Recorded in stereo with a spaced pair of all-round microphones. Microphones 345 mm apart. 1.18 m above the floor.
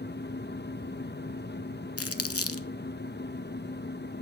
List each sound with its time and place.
0.0 s a fan: 30° left (ahead or behind), 0.8 m
2.0 s crumpling: 40° left (ahead or behind), 0.9 m